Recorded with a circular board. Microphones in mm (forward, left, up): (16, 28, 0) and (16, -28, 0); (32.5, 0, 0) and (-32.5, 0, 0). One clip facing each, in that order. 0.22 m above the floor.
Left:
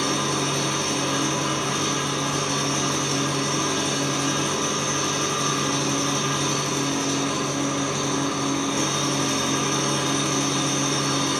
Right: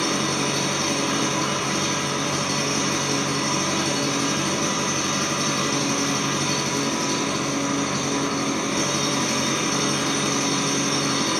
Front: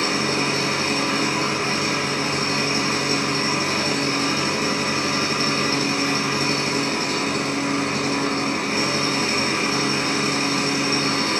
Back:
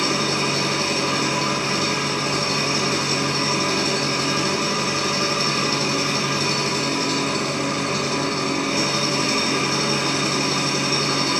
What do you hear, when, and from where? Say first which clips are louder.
0.0 s an engine running: right 1 dB, even; 55° right, 1.0 m